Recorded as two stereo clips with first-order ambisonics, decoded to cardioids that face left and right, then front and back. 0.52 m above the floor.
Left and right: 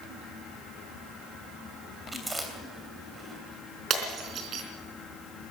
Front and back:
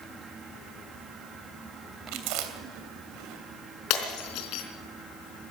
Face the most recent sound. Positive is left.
turn(degrees=-35)